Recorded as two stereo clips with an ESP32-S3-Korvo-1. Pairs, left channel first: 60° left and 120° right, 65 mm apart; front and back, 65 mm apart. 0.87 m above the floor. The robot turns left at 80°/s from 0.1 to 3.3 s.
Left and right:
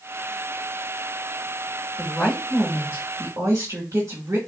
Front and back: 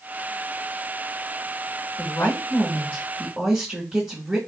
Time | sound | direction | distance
2.0 | a woman speaking | 5° right | 1.3 m